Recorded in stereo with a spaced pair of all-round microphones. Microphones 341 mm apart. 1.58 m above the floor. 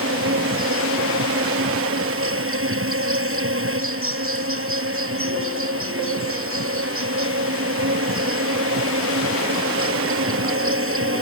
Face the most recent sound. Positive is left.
turn(degrees=-40)  # may be behind; listen again after turning